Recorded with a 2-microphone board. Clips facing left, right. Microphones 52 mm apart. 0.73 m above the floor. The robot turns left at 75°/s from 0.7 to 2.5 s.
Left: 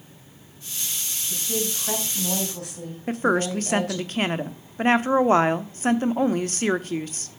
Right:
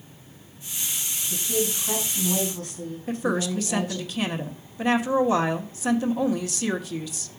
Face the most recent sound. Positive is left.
turn(degrees=45)  # may be behind; listen again after turning